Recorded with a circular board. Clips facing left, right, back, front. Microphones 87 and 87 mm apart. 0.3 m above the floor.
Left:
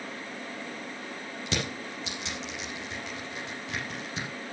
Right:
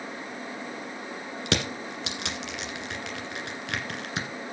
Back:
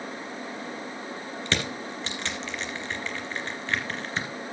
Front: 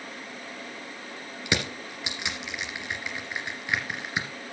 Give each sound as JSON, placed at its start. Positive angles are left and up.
{"t": 1.5, "sound": "crushing", "azimuth_deg": -80, "distance_m": 1.7}